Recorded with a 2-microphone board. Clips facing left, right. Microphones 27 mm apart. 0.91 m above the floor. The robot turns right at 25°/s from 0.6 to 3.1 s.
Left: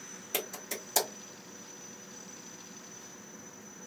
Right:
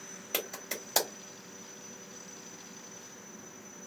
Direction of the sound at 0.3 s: 15° right (ahead or behind).